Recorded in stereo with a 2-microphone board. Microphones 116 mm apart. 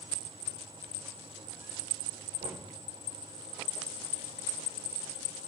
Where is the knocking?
75° right (ahead or behind), 3 m.